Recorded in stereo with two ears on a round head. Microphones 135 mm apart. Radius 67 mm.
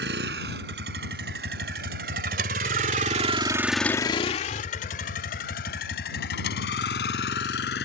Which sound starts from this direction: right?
A vehicle, at 0.0 s.